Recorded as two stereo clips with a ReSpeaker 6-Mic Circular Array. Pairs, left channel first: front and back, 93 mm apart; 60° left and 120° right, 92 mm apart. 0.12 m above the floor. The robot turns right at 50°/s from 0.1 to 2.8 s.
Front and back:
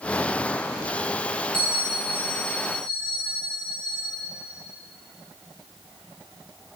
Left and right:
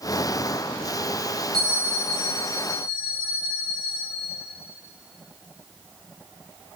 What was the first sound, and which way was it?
A bell, 160° right.